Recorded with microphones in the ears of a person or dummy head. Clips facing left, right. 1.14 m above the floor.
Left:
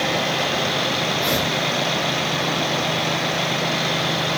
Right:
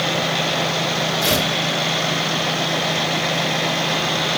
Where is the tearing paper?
80° right, 5 m.